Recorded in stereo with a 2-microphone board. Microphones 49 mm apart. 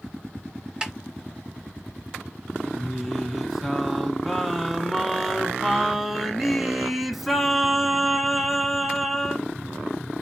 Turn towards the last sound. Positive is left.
turn(degrees=0)  # may be behind; listen again after turning